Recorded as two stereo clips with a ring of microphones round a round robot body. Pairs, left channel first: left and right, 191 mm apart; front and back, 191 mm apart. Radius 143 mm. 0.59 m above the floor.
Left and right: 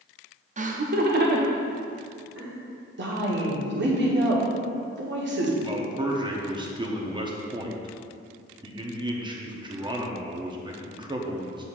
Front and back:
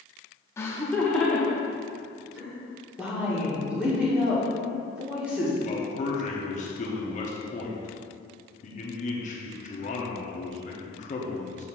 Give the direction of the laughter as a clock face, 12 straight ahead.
2 o'clock.